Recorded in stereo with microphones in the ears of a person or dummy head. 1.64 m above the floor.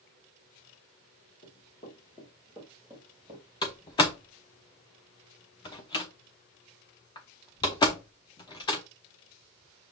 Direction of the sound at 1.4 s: 30° left (ahead or behind).